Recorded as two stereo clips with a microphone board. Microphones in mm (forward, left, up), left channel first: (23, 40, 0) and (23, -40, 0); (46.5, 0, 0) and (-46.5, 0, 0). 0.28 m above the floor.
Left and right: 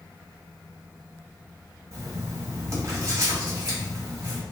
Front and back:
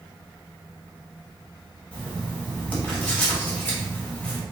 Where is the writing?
70° right, 1.5 m.